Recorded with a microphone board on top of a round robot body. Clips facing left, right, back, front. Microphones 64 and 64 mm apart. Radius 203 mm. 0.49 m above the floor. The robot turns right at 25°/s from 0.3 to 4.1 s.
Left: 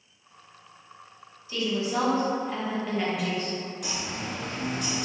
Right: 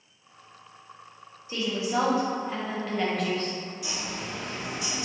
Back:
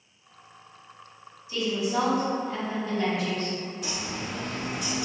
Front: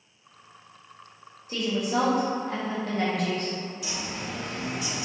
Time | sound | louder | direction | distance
1.5 | a woman speaking | even, even | 30° right | 1.1 m
3.8 | a bird | left 1 dB, back 1 dB | 130° left | 0.6 m